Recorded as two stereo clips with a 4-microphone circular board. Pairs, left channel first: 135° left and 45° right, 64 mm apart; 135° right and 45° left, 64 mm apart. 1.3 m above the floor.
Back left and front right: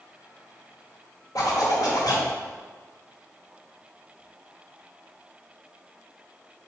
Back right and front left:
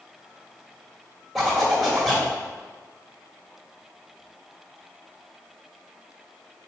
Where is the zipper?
135° left, 2.5 m.